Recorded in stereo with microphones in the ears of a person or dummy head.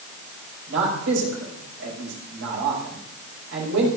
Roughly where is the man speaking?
Right.